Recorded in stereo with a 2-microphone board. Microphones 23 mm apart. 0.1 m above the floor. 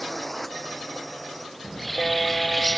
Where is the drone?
Centre (ahead or behind); by 2.8 s 5° right (ahead or behind).